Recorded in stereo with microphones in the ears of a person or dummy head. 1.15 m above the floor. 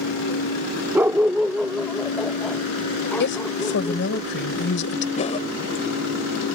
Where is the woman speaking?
60° left (ahead or behind).